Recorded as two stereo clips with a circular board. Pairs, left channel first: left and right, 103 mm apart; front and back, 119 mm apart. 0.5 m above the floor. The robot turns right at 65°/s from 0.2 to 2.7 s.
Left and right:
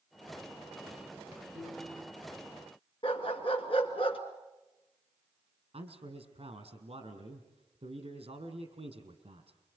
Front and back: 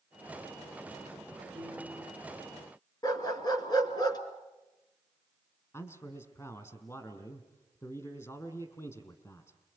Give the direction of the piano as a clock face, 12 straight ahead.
3 o'clock.